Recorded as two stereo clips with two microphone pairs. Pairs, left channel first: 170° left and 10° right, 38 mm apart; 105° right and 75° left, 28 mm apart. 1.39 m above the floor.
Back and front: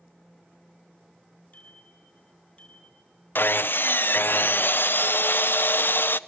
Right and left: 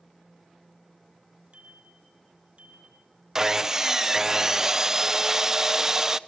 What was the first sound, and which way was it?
A bicycle bell, 115° left.